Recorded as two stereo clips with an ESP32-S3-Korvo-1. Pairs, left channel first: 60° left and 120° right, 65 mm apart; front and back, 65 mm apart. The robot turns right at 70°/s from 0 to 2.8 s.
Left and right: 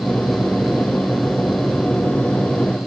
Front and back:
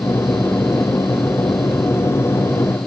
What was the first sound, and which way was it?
Only background noise.